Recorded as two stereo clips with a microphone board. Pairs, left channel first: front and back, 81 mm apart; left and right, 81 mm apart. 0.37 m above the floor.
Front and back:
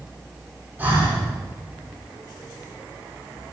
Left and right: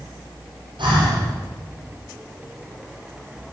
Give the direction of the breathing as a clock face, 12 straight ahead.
4 o'clock.